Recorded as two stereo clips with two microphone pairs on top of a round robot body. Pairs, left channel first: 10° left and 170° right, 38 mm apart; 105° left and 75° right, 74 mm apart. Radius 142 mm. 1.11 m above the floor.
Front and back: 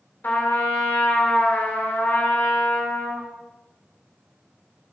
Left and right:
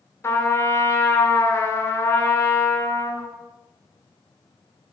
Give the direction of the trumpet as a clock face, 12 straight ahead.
10 o'clock.